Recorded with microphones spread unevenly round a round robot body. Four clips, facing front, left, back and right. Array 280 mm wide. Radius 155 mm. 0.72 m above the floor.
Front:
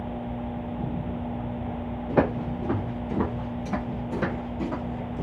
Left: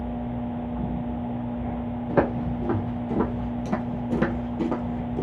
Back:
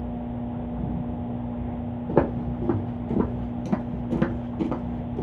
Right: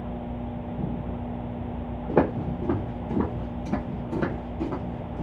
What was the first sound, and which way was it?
Footsteps, 150° right.